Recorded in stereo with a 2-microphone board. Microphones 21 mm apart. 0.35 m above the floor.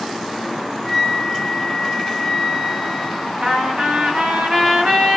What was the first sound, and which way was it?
A flute, 10° right (ahead or behind).